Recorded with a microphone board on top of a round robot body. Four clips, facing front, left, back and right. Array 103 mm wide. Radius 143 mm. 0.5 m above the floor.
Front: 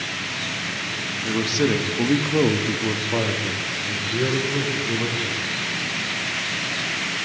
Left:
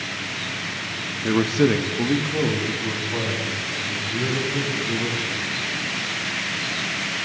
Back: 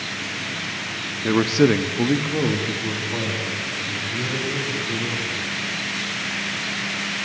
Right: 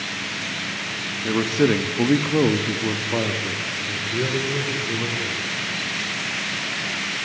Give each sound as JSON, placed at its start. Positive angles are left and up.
{"t": 1.2, "sound": "a man speaking", "azimuth_deg": 165, "distance_m": 0.8}